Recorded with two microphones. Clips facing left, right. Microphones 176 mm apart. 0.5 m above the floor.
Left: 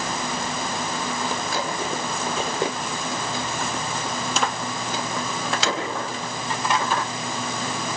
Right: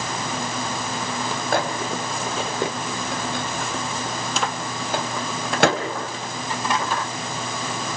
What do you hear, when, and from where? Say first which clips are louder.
1.5 s a microwave: right 3 dB; 60° right (ahead or behind), 3 m